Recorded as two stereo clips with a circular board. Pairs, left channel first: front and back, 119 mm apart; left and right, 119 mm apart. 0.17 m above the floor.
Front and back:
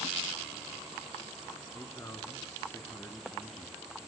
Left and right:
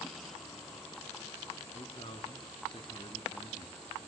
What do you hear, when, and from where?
1.7 s a man speaking: 65° left, 2 m